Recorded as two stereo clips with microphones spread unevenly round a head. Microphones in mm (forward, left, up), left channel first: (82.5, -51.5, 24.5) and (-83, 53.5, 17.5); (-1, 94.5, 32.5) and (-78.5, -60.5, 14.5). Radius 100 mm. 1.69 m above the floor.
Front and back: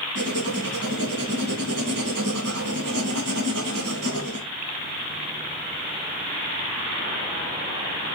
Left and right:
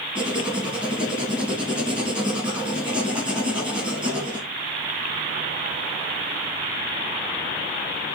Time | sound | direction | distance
0.1 | writing | 160° left | 3.5 m